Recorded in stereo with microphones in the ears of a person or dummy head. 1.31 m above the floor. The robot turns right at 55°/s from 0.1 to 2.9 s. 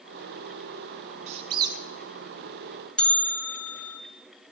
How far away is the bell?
About 0.6 m.